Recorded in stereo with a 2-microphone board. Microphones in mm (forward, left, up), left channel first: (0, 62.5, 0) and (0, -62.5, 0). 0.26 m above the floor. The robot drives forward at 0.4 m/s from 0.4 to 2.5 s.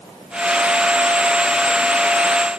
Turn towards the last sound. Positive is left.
No sound to turn to.